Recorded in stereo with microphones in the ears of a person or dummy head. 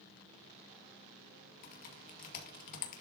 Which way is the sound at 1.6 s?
45° left (ahead or behind).